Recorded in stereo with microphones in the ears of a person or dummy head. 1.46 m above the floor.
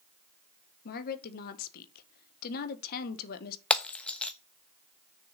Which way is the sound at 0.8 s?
50° left (ahead or behind).